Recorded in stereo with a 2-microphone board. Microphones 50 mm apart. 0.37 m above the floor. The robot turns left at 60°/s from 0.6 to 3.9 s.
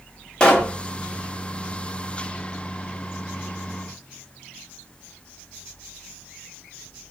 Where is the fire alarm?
No fire alarm in this recording.